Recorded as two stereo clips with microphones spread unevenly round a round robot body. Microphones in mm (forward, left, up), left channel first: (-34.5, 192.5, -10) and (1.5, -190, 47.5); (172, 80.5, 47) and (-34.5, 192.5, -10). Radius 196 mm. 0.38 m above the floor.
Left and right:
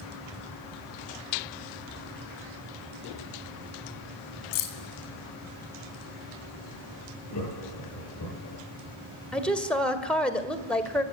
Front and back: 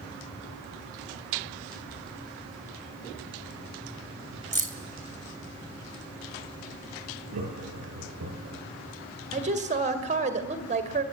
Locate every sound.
4.5 s keys jangling: 95° left, 2.5 m
7.3 s laughter: 145° left, 9 m
9.3 s a woman speaking: 175° left, 1.8 m